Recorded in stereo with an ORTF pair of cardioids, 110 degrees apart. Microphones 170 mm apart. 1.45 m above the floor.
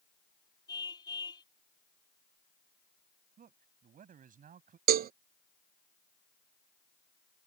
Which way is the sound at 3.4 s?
50° right.